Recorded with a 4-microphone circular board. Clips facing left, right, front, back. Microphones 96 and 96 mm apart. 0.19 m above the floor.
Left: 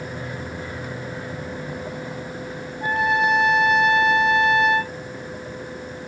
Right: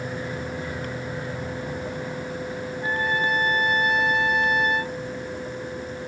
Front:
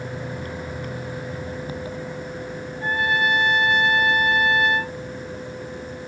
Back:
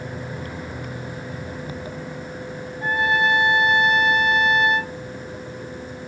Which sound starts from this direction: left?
A trumpet, at 2.8 s.